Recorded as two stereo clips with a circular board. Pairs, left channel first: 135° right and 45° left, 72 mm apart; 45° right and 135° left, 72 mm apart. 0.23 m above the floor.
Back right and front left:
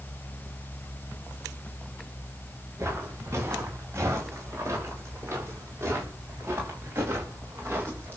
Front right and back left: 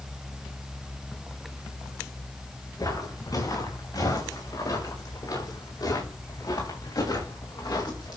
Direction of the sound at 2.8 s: 5° right.